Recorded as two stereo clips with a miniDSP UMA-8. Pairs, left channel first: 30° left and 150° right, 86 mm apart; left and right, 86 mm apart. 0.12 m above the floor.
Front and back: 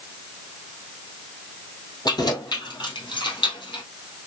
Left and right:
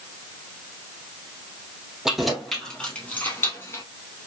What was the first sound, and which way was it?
Keys jangling, 5° right.